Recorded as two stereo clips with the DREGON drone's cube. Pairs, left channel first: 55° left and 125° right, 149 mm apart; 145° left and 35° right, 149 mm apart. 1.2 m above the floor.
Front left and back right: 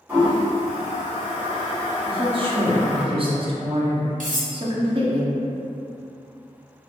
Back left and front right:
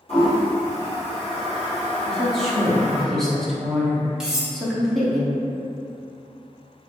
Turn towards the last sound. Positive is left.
turn(degrees=-120)